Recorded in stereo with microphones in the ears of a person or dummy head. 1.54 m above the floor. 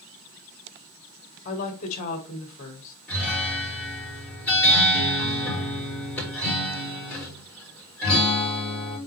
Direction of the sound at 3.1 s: 10° left (ahead or behind).